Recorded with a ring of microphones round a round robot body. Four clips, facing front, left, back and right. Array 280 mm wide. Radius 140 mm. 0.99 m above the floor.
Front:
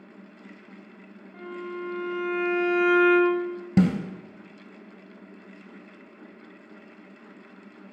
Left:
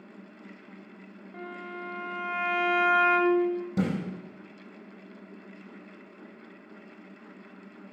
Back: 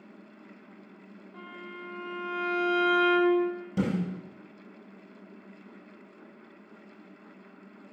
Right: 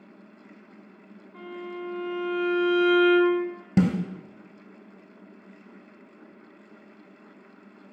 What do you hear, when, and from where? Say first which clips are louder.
1.3 s a violin: right 3 dB, front 9 dB; 80° left, 1.5 m
3.8 s a snare drum: right 8 dB, front 7 dB; 35° right, 1.9 m